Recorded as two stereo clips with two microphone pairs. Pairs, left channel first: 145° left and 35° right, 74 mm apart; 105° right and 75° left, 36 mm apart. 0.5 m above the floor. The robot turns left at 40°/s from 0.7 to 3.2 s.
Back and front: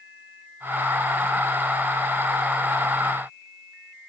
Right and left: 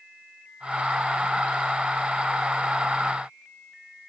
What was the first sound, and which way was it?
Only background noise.